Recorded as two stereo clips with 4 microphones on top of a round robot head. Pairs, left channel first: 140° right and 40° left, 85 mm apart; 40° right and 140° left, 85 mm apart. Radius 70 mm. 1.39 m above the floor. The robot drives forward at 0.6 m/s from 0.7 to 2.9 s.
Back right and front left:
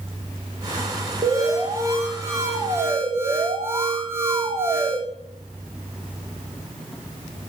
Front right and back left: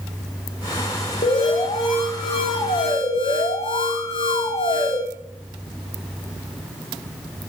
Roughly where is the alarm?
Ahead.